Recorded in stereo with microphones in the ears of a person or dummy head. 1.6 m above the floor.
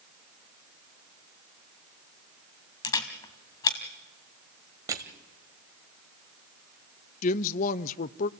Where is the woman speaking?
40° left (ahead or behind), 0.6 m.